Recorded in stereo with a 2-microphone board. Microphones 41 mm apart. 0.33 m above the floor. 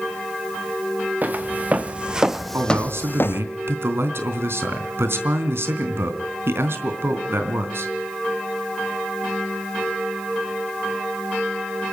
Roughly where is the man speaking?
Right.